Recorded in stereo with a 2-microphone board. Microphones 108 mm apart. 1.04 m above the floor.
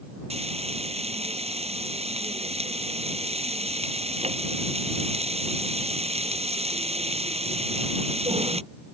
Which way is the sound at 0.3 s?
80° right.